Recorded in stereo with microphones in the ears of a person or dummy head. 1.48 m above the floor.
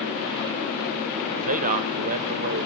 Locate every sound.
1.4 s a man speaking: 45° right (ahead or behind), 0.8 m